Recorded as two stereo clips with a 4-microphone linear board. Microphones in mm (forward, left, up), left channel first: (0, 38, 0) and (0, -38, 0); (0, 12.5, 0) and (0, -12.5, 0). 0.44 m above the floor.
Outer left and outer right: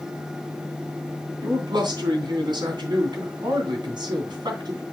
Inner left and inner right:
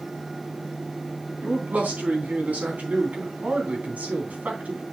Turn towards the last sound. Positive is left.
turn(degrees=-75)  # may be behind; listen again after turning